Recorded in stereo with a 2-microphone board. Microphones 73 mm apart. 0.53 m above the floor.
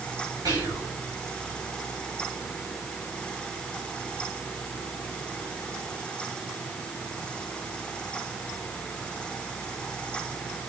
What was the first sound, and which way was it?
Whispering, 55° right (ahead or behind).